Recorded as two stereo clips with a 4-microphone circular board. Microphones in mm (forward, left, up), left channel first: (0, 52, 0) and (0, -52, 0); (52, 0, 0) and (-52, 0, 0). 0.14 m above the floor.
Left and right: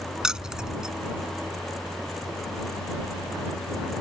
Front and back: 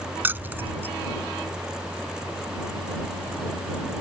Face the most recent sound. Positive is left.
turn(degrees=-160)